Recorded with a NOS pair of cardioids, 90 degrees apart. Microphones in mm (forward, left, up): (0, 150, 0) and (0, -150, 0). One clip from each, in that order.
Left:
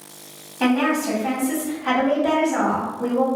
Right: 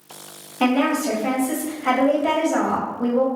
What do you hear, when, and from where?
0.6 s a woman speaking: 25° right, 1.5 m